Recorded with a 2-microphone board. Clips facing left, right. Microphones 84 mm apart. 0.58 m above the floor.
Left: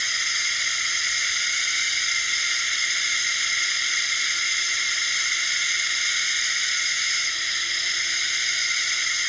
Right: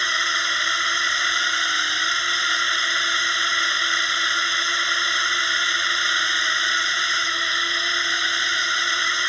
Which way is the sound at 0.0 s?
50° right (ahead or behind).